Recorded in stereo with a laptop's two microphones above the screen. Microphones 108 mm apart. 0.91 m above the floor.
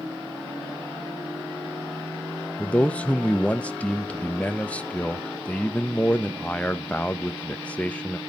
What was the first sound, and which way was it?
A man speaking, 15° left (ahead or behind).